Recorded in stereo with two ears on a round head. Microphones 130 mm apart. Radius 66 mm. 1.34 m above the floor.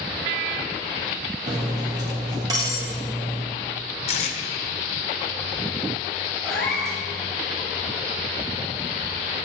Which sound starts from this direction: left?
Tape being pulled, at 4.1 s.